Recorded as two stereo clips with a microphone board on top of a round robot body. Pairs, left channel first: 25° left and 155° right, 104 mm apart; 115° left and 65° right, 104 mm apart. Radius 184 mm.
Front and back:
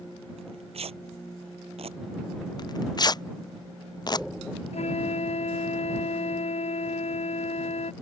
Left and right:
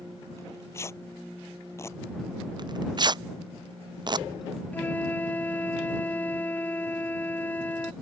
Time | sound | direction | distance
0.4 | tearing paper | 175° left | ?
2.6 | tearing paper | 25° right | ?
4.7 | a flute | 35° left | ?